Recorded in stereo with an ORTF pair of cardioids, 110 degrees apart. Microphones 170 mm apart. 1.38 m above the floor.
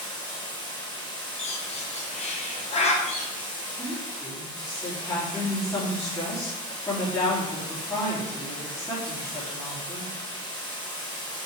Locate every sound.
0.0 s running water: 30° left, 3.5 m
1.4 s a bird: 40° left, 1.4 m
3.8 s a woman speaking: 20° left, 3 m